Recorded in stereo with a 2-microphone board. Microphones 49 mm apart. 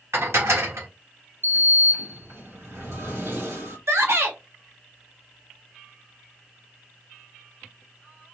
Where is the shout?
70° right (ahead or behind), 0.9 m.